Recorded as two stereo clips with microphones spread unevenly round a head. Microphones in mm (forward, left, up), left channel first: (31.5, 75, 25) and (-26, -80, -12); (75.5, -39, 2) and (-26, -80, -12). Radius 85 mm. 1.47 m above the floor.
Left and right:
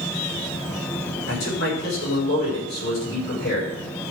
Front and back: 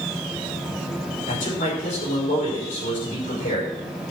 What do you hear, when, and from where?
1.3 s a man speaking: 40° left, 6 m